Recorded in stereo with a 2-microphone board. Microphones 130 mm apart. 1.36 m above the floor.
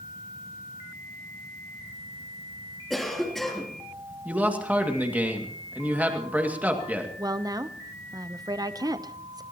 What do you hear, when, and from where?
2.9 s a cough: centre (ahead or behind), 3 m
4.2 s a man speaking: 10° right (ahead or behind), 2 m
7.2 s a woman speaking: 30° right (ahead or behind), 0.8 m